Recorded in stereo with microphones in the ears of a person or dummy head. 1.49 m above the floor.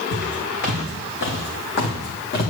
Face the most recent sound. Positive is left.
turn(degrees=55)  # may be behind; listen again after turning